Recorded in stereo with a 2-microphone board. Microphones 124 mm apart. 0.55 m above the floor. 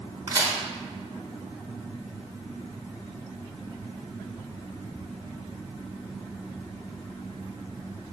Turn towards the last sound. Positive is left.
turn(degrees=-35)  # may be behind; listen again after turning